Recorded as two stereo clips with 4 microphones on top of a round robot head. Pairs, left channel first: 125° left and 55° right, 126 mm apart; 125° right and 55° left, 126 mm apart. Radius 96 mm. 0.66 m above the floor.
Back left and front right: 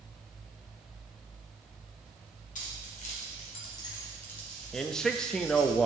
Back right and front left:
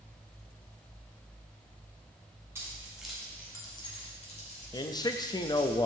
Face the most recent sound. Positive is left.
turn(degrees=-150)